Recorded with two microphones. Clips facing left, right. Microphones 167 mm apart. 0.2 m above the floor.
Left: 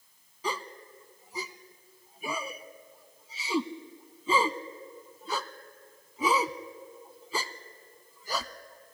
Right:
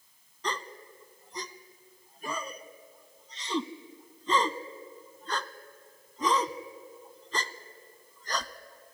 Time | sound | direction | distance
0.4 | a gasp | 5° left (ahead or behind) | 0.6 m